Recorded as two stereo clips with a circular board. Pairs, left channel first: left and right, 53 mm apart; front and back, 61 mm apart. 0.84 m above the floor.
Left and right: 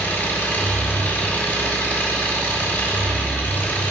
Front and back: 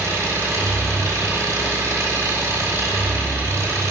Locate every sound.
0.0 s an engine running: 140° left, 3.5 m